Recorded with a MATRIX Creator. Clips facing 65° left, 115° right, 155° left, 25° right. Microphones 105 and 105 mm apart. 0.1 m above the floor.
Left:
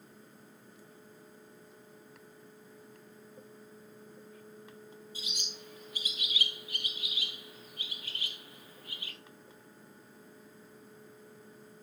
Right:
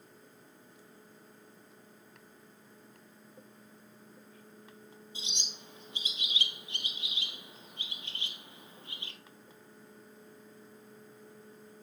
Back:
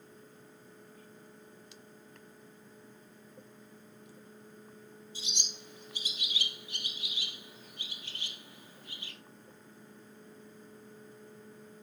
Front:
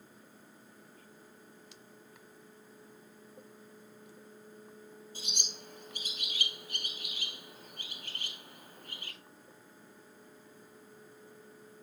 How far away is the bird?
About 1.6 m.